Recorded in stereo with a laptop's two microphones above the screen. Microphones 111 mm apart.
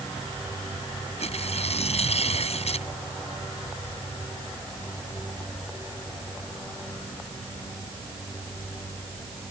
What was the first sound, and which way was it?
Tearing paper, 70° left (ahead or behind).